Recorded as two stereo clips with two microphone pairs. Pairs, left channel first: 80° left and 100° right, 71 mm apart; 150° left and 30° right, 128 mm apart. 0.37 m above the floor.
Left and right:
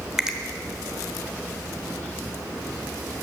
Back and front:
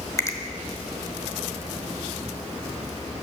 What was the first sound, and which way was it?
A finger snap, 175° right.